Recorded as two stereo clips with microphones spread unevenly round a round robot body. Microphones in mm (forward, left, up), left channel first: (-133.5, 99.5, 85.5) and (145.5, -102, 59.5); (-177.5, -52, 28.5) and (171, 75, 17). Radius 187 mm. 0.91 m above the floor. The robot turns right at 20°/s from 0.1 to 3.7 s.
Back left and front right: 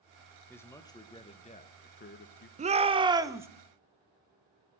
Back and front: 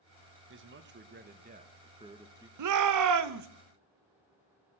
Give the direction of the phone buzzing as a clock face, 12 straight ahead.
No phone buzzing in this recording.